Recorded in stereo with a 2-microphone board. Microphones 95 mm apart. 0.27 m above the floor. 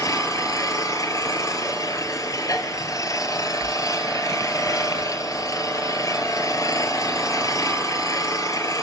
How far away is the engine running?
About 1.7 m.